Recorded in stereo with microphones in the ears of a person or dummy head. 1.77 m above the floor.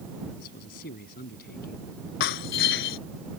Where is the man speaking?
55° left (ahead or behind).